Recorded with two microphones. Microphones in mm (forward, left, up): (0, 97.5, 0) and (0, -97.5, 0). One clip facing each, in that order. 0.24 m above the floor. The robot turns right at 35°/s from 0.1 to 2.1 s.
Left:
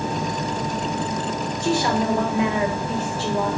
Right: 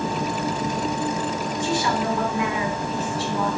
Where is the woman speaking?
50° left (ahead or behind), 3.5 m; by 3.6 s 35° left (ahead or behind), 3.5 m.